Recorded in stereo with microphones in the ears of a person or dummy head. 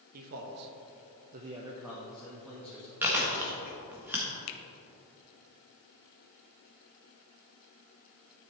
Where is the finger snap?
65° left (ahead or behind), 0.8 m.